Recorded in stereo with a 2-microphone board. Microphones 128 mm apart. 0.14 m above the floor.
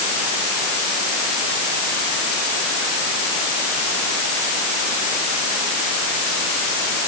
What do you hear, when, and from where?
Only background noise.